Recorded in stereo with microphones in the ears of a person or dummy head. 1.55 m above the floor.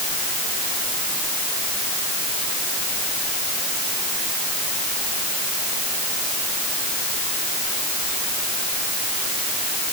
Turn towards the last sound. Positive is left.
No sound to turn to.